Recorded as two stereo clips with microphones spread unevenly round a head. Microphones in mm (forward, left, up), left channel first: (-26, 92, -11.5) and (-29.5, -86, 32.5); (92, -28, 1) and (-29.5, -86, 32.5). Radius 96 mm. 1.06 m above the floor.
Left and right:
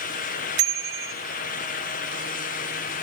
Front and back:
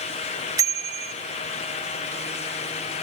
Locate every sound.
0.6 s a bicycle bell: 90° right, 4 m